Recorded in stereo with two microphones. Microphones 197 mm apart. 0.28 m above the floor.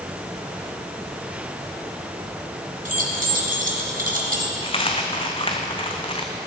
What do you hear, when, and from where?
2.9 s keys jangling: 50° right (ahead or behind), 1.7 m
4.6 s a dropped coin: 30° left (ahead or behind), 1.0 m